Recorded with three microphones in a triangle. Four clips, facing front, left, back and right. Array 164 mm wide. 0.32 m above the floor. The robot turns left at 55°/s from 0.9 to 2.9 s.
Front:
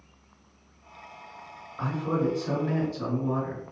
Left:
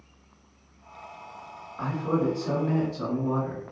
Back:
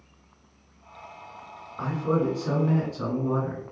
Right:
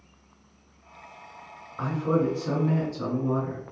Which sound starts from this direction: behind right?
A man speaking, at 1.8 s.